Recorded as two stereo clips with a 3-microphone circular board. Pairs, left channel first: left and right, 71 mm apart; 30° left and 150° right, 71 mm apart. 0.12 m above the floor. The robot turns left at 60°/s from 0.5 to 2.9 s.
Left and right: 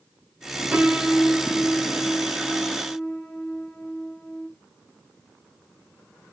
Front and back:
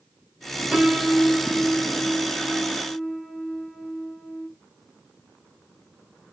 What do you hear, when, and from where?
0.7 s a piano: 95° right, 0.5 m; by 4.5 s 135° left, 0.5 m